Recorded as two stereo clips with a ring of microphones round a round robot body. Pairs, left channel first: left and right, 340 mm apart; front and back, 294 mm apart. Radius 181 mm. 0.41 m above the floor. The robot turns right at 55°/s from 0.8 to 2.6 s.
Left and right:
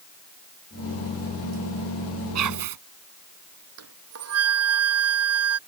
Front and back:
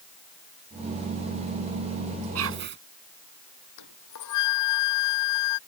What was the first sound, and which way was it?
Whispering, 135° right.